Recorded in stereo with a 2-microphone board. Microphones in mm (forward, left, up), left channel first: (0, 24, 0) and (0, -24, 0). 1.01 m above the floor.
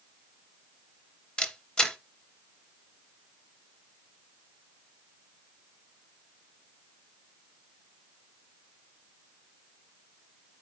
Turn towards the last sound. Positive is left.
turn(degrees=15)  # may be behind; listen again after turning